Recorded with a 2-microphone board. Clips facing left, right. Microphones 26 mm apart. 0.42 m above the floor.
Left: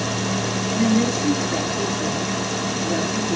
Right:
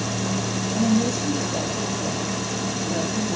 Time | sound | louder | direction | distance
0.7 | a woman speaking | left 2 dB | 75° left (ahead or behind) | 6.5 m